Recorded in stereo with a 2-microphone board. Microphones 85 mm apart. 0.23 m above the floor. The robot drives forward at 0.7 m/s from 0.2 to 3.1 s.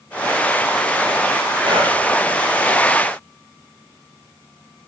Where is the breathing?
70° right (ahead or behind), 4 m; by 1.9 s 75° right (ahead or behind), 4 m.